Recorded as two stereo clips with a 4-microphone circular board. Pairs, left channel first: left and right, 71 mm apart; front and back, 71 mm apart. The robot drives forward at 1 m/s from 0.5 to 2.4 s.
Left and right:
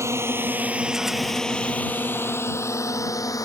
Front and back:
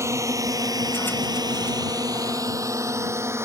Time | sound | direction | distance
0.0 | a drone | 135° right | ?